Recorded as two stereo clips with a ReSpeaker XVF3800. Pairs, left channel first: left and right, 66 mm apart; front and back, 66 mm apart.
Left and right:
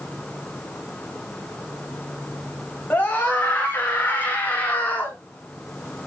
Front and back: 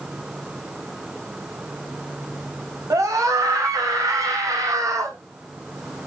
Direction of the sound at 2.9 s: 150° left.